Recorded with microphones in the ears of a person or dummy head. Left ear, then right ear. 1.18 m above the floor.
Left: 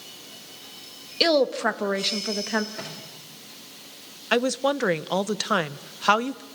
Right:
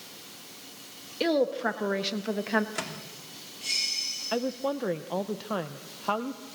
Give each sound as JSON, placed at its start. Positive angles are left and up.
{"t": 1.2, "sound": "a woman speaking", "side_deg": 35, "distance_m": 1.2}
{"t": 2.8, "sound": "a microwave", "side_deg": -65, "distance_m": 3.0}
{"t": 4.3, "sound": "a woman speaking", "side_deg": 50, "distance_m": 0.7}